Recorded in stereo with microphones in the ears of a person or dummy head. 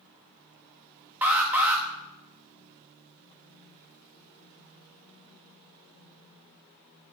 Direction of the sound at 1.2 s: 10° right (ahead or behind).